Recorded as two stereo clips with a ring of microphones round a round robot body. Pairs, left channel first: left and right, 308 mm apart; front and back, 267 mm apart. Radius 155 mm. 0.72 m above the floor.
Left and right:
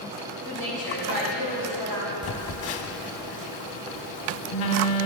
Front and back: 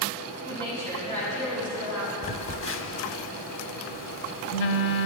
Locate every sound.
0.5 s a woman speaking: 105° right, 4.5 m; by 2.1 s 115° right, 6 m
2.2 s a phone buzzing: 45° left, 0.8 m